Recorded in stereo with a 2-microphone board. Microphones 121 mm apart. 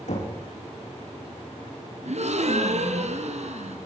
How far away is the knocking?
About 8.5 m.